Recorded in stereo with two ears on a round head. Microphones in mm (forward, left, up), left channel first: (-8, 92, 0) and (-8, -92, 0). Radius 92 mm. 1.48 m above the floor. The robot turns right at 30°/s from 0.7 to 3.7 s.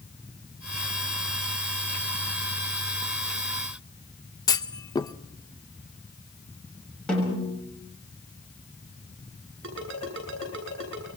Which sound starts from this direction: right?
A ringtone, at 9.6 s.